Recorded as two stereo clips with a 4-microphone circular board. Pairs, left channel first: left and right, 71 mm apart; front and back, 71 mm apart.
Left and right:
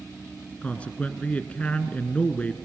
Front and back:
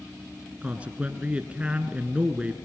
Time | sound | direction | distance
0.6 | a man speaking | 135° left | 1.5 m